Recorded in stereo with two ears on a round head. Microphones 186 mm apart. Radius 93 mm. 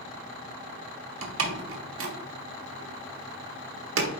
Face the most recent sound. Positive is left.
turn(degrees=-70)  # may be behind; listen again after turning